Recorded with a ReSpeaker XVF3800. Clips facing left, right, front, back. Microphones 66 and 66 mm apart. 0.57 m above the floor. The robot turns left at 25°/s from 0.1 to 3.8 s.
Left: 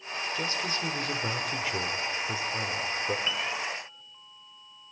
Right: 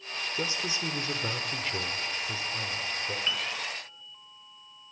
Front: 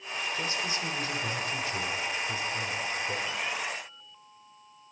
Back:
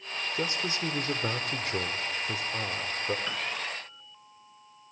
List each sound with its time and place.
0.3 s a man speaking: 150° right, 1.7 m; by 3.2 s 140° left, 1.7 m
3.3 s a piano: 175° left, 4.5 m; by 3.4 s 170° left, 4.5 m